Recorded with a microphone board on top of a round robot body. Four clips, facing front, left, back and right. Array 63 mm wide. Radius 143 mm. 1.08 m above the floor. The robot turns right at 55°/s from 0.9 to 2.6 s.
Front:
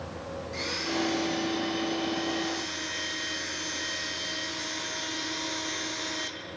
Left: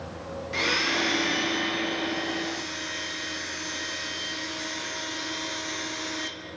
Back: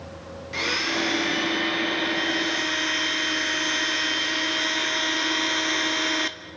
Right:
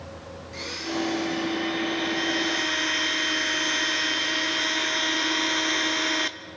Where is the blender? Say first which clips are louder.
Left 4 dB, back 6 dB; 130° left, 1.3 m; by 6.3 s 135° right, 1.3 m.